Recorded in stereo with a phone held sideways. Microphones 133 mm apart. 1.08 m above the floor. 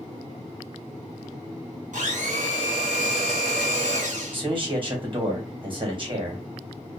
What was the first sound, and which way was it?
A blender, 65° right (ahead or behind).